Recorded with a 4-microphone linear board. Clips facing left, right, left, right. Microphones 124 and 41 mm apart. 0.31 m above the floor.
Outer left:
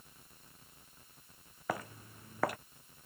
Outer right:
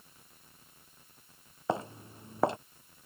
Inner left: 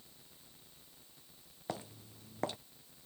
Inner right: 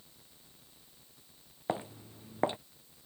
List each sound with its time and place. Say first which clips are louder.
1.7 s footsteps: outer right 6 dB, inner right 7 dB; 25° right (ahead or behind)